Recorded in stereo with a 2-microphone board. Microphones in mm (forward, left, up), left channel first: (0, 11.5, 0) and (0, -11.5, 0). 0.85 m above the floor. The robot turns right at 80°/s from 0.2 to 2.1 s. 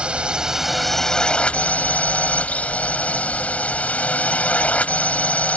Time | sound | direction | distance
0.0 | a drone | 50° right | ?